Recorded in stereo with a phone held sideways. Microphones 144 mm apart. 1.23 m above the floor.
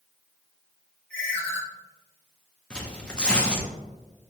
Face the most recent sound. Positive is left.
turn(degrees=5)  # may be behind; listen again after turning